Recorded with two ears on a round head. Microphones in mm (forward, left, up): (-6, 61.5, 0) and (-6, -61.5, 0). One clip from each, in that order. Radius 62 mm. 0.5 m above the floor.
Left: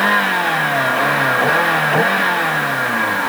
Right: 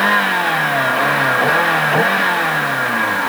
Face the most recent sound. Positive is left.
turn(degrees=-5)  # may be behind; listen again after turning